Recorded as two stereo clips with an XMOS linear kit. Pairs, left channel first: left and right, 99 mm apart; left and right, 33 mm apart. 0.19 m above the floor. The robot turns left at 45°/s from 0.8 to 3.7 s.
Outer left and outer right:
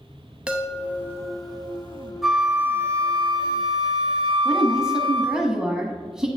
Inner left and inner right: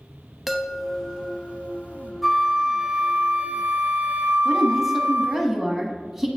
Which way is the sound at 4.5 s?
5° right (ahead or behind).